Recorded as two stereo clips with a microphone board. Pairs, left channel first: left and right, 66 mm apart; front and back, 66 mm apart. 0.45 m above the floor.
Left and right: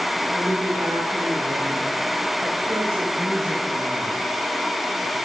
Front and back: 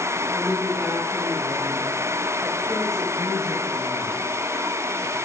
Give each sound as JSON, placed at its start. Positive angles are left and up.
{"t": 0.3, "sound": "a woman speaking", "azimuth_deg": -125, "distance_m": 3.0}